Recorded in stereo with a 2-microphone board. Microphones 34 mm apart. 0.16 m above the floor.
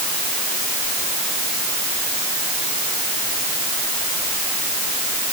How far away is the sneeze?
No sneeze in this recording.